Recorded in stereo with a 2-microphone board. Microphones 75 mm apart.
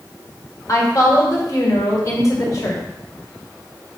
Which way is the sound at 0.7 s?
45° left (ahead or behind).